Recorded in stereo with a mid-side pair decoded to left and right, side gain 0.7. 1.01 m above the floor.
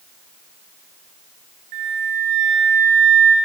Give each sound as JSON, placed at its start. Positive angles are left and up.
{"t": 1.7, "sound": "a flute", "azimuth_deg": -70, "distance_m": 3.0}